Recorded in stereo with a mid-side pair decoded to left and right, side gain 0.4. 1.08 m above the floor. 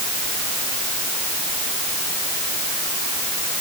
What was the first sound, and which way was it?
Only background noise.